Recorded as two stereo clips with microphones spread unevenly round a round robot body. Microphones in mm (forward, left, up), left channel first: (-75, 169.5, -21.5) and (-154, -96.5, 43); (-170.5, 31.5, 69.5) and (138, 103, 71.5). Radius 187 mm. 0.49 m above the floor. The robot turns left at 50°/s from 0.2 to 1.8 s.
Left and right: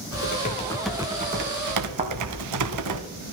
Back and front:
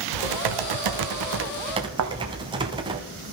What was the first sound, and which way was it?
Typing on a keyboard, 15° left.